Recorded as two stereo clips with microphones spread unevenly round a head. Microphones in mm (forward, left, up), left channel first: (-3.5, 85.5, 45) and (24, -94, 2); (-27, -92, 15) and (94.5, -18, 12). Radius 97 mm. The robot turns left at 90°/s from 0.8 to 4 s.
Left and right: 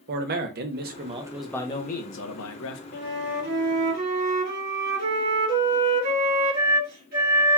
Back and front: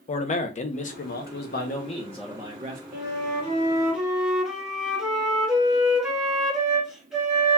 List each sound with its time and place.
0.1 s a man speaking: 110° right, 0.8 m; by 2.8 s 65° left, 0.8 m
2.9 s a flute: 45° left, 2 m; by 7.6 s 55° right, 2 m